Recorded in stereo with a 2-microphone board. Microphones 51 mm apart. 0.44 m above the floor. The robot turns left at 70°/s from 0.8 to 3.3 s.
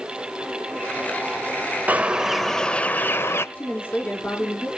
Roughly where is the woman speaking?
Left.